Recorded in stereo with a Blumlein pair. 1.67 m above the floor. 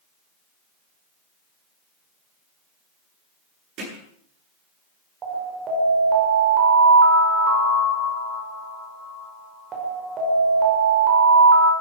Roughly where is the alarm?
Ahead right.